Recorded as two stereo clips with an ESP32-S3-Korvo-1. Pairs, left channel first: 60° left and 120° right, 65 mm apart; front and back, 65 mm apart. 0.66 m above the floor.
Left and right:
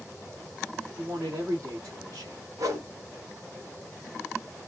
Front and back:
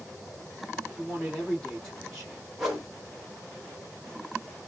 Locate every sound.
1.0 s a man speaking: 85° right, 2.0 m
2.6 s a whoosh: 90° right, 1.9 m